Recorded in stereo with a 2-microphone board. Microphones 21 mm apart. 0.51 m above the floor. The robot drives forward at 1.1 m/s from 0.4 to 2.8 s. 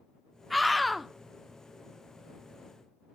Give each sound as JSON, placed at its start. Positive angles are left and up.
{"t": 0.5, "sound": "a scream", "side_deg": 0, "distance_m": 0.8}